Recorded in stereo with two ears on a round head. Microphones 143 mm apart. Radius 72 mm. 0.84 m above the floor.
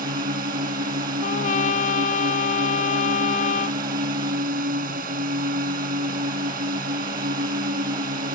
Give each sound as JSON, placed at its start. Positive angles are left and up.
{"t": 0.0, "sound": "a drone", "side_deg": -60}
{"t": 1.2, "sound": "a trumpet", "side_deg": 50}